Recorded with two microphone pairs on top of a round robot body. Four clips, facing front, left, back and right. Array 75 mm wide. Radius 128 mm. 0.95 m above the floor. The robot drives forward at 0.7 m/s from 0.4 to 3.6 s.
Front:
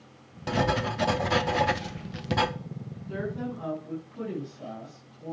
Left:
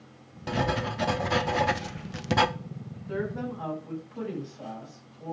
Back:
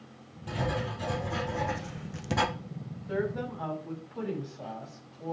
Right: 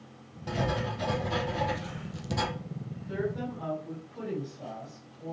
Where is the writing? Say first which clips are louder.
Left 3 dB, front 6 dB; 20° left, 1.7 m; by 2.5 s 90° left, 0.9 m.